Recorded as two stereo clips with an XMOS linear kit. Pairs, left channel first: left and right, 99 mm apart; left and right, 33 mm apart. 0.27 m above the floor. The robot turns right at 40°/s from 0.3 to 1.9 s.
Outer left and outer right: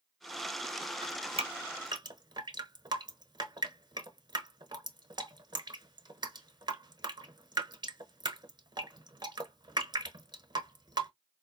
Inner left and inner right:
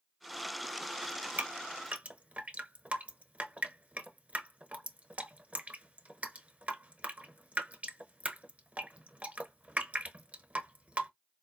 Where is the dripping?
80° right, 0.7 m; by 11.1 s 45° right (ahead or behind), 0.7 m.